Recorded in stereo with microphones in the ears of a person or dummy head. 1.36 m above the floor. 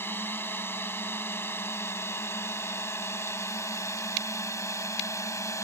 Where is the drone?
10° left (ahead or behind); by 5.6 s 15° left (ahead or behind).